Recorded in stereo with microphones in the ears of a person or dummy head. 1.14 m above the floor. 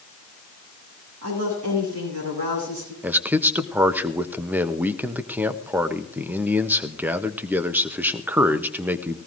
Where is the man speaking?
10° right (ahead or behind), 0.7 m.